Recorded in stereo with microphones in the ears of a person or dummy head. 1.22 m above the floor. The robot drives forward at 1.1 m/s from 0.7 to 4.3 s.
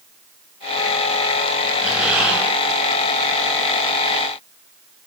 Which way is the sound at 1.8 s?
10° right (ahead or behind).